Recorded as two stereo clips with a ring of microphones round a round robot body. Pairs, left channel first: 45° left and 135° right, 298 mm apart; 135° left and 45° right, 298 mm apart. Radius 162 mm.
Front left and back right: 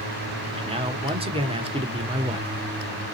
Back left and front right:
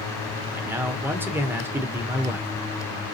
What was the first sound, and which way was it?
A man speaking, 115° right.